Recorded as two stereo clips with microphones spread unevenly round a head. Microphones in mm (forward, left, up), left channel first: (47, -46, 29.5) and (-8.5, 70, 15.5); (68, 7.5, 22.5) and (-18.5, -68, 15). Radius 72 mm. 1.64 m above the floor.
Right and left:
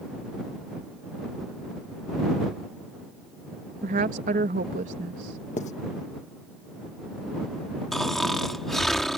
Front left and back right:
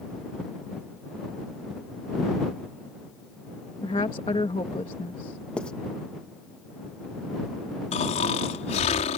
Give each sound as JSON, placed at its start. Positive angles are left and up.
{"t": 3.8, "sound": "a woman speaking", "azimuth_deg": 100}
{"t": 5.6, "sound": "writing", "azimuth_deg": -40}
{"t": 7.9, "sound": "snoring", "azimuth_deg": 20}